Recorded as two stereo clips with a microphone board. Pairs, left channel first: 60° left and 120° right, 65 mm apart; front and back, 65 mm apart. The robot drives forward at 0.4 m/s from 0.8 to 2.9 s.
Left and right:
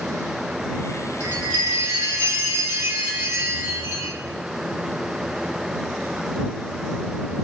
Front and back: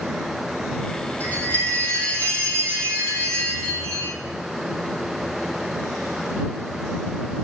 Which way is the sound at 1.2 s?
55° right.